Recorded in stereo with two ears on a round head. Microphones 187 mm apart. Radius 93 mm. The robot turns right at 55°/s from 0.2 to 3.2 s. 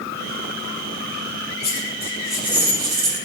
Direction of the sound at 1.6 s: 145° left.